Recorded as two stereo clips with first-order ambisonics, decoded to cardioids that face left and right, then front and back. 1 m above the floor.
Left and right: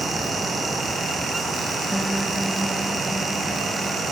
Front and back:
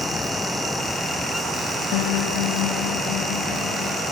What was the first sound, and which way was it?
A piano, straight ahead.